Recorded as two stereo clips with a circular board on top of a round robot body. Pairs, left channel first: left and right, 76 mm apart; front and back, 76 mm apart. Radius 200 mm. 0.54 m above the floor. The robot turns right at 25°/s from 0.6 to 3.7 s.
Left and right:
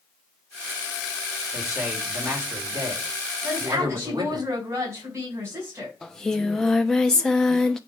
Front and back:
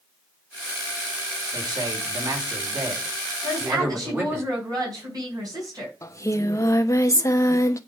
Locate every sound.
1.5 s a man speaking: 175° right, 3.5 m; by 4.4 s 120° right, 3.5 m
3.4 s a woman speaking: 150° right, 5 m; by 5.9 s 145° right, 5 m
6.0 s singing: 10° left, 1.4 m